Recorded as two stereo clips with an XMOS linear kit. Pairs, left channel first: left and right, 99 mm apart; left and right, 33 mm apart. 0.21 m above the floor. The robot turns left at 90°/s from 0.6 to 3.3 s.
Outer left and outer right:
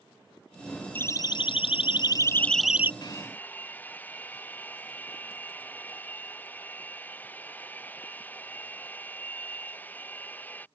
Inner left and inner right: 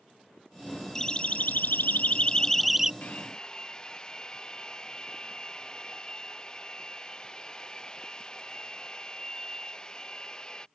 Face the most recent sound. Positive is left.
turn(degrees=20)  # may be behind; listen again after turning